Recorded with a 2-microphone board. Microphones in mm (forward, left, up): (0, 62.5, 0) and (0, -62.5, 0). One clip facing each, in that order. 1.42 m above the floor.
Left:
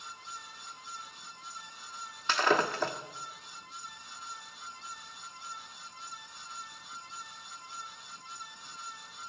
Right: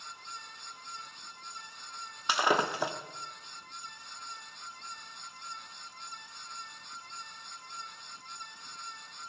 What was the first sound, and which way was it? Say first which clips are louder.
Breaking glass: left 1 dB; 15° right (ahead or behind).